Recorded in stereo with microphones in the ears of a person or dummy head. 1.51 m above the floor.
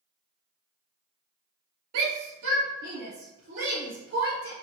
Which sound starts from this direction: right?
A shout, at 1.9 s.